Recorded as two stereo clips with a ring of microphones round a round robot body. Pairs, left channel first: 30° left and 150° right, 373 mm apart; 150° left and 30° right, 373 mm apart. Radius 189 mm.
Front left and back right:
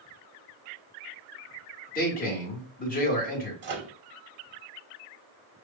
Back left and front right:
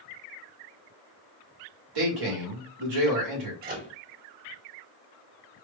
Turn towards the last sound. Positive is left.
turn(degrees=-95)